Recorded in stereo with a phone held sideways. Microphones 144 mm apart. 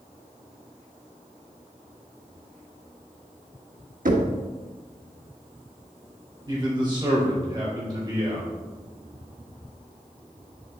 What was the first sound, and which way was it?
Knocking, 70° right (ahead or behind).